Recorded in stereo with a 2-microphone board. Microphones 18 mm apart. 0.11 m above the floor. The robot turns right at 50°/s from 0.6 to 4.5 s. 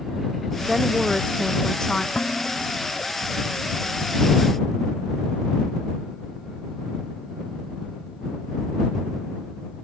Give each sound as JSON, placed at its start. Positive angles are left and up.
{"t": 0.7, "sound": "a woman speaking", "azimuth_deg": -20}
{"t": 2.1, "sound": "dishes clattering", "azimuth_deg": 130}